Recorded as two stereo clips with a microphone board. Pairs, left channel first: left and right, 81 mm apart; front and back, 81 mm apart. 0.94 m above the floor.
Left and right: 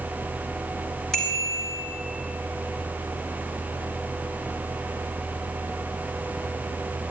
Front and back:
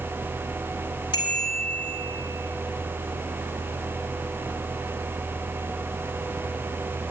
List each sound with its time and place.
1.1 s a bicycle bell: 5° left, 3.5 m